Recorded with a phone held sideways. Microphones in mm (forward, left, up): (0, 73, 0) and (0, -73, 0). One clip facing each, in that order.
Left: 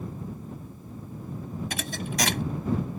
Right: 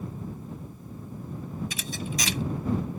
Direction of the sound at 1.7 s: 65° left (ahead or behind).